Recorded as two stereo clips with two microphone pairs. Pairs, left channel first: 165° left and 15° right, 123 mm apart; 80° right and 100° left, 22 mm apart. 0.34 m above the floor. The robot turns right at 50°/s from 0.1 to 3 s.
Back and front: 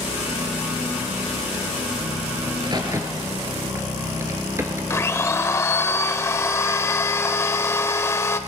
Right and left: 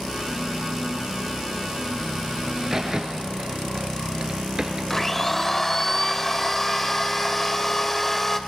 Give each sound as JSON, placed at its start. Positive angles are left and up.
{"t": 2.5, "sound": "a crack", "azimuth_deg": 25, "distance_m": 1.3}
{"t": 4.9, "sound": "a blender", "azimuth_deg": -140, "distance_m": 0.6}